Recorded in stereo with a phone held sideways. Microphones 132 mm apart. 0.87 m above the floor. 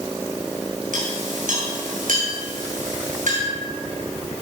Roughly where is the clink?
Right.